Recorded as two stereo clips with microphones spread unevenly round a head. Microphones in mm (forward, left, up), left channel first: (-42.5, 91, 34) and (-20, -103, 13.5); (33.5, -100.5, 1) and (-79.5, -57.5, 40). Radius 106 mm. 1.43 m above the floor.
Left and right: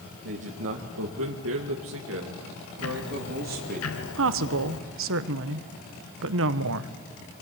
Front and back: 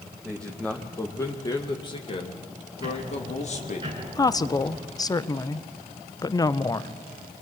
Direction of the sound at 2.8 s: 95° left.